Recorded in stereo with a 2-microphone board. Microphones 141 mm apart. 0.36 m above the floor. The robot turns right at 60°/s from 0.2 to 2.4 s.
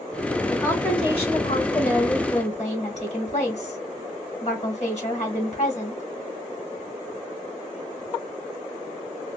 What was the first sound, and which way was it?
A woman speaking, 5° left.